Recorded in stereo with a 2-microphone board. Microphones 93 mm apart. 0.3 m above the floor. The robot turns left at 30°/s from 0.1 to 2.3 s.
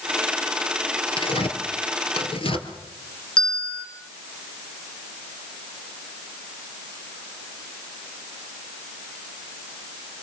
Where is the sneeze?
No sneeze in this recording.